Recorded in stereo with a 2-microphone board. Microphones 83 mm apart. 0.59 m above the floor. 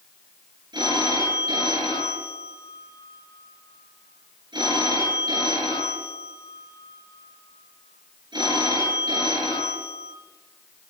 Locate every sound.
0.7 s a phone ringing: 65° right (ahead or behind), 6.5 m